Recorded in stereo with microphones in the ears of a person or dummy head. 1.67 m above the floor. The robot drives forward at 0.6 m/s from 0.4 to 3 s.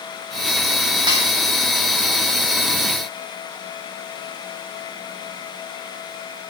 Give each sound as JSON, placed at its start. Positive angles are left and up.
{"t": 1.1, "sound": "a snare drum", "side_deg": -20, "distance_m": 1.7}